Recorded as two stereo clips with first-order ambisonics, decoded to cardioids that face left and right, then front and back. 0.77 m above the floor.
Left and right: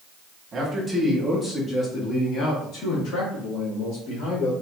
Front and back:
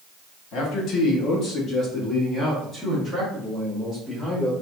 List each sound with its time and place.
0.5 s a man speaking: 25° right, 1.4 m; by 4.5 s 90° left, 3 m